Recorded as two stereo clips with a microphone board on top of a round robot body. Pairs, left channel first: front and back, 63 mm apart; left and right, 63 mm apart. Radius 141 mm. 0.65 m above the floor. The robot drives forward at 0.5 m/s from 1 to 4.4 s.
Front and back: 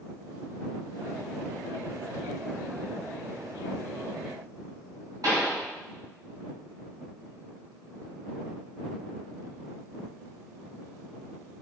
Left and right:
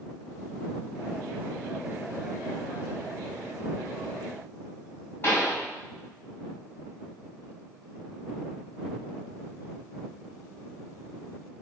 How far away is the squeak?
No squeak in this recording.